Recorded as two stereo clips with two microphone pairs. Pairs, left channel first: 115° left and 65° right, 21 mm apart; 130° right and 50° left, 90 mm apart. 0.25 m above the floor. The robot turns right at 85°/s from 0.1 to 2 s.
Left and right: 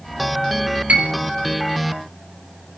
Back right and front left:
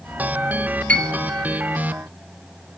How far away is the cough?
I don't hear a cough.